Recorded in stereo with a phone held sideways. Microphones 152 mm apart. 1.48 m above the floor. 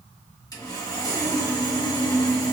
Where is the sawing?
25° left (ahead or behind), 1.2 m.